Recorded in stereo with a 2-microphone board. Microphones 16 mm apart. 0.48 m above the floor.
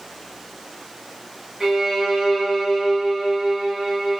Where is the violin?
55° right (ahead or behind), 1.5 m.